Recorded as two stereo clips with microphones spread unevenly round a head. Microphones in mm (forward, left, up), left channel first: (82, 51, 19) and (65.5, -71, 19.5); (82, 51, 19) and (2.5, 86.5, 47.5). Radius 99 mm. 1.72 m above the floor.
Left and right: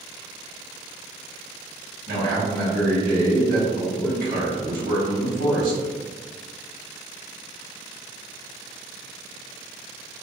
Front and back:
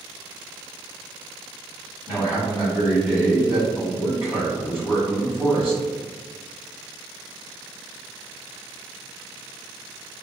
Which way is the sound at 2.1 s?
125° right.